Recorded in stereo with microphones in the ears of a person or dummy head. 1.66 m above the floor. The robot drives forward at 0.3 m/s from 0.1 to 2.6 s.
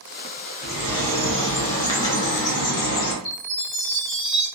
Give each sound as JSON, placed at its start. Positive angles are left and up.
{"t": 0.6, "sound": "a bird", "side_deg": 30, "distance_m": 1.2}
{"t": 3.2, "sound": "a chime", "side_deg": 25, "distance_m": 1.3}